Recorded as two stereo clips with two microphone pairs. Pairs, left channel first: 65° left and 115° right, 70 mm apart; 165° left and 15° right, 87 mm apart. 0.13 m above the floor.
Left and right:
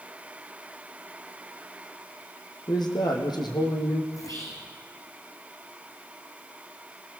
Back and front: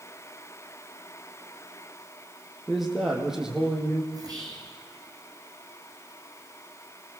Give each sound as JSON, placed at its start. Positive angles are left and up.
{"t": 2.7, "sound": "a man speaking", "azimuth_deg": 70, "distance_m": 4.5}
{"t": 4.1, "sound": "whispering", "azimuth_deg": 30, "distance_m": 7.0}